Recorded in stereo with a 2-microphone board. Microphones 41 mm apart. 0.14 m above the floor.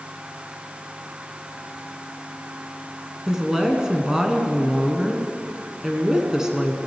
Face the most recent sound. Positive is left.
turn(degrees=-15)  # may be behind; listen again after turning